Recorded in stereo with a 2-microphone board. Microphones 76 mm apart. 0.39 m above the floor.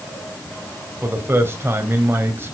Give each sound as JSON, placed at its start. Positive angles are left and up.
{"t": 1.0, "sound": "a man speaking", "side_deg": -30, "distance_m": 2.0}